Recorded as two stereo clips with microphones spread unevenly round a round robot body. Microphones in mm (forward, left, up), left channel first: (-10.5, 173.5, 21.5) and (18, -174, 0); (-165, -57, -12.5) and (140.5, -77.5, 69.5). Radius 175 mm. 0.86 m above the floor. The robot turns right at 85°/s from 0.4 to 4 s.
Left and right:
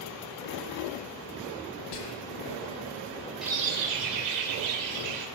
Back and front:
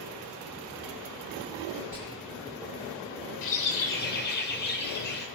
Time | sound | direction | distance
1.9 | whispering | 85° left | 0.8 m
3.4 | a bird | 175° right | 2 m